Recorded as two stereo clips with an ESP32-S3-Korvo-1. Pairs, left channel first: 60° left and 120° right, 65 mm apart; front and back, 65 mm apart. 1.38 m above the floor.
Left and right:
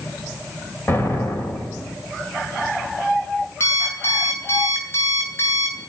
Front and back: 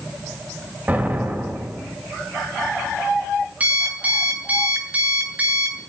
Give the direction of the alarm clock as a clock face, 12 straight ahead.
8 o'clock.